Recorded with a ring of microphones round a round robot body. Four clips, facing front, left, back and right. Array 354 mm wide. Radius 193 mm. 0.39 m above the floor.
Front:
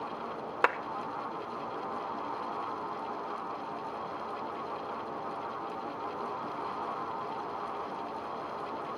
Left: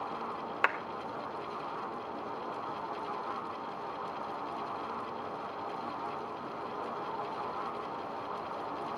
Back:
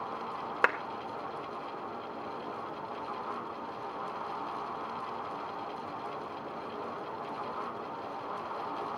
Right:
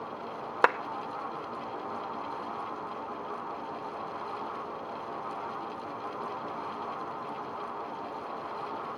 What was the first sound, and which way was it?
A clap, 90° right.